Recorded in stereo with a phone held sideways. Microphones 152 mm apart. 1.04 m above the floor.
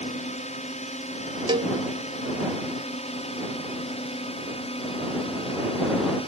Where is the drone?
50° left (ahead or behind); by 6.3 s 40° left (ahead or behind).